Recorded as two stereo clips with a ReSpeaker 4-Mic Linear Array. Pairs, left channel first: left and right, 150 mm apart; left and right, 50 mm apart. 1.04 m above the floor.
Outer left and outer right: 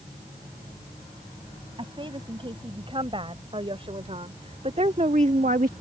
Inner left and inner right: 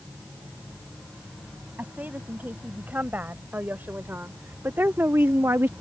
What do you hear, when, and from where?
1.8 s a woman speaking: 35° right (ahead or behind); by 5.7 s 70° right (ahead or behind)